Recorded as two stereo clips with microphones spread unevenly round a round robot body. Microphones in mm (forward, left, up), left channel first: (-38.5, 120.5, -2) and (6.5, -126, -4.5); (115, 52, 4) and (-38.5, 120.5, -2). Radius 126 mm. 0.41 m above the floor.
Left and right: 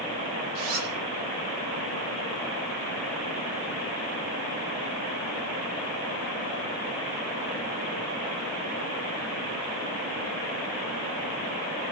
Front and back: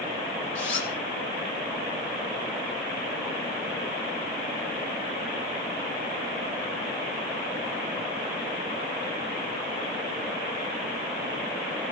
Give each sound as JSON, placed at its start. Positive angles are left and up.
{"t": 0.6, "sound": "a zipper", "azimuth_deg": -40, "distance_m": 9.0}